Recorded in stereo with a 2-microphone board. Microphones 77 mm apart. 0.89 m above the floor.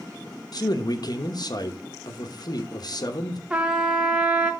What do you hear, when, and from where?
0.5 s a man speaking: 60° left (ahead or behind), 0.9 m
3.5 s a trumpet: 15° right (ahead or behind), 0.8 m